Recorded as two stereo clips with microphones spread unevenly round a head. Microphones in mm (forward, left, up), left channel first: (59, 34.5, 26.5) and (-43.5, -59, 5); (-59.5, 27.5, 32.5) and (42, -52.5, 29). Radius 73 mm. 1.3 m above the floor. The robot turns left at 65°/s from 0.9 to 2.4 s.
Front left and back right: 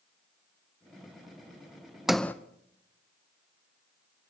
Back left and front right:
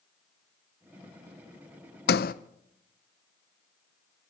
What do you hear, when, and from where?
2.1 s a sliding door: 130° left, 0.5 m; by 2.3 s 115° left, 0.5 m